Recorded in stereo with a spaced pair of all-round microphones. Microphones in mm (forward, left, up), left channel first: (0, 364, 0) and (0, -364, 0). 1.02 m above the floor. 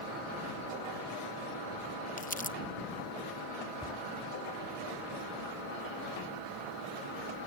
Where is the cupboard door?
5° left (ahead or behind).